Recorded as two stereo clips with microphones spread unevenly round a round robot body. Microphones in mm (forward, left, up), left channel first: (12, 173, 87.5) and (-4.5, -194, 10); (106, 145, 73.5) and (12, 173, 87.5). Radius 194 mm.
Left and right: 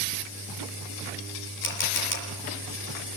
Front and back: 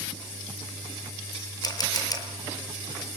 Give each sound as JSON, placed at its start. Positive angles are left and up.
{"t": 1.6, "sound": "a camera shutter", "azimuth_deg": 30, "distance_m": 6.0}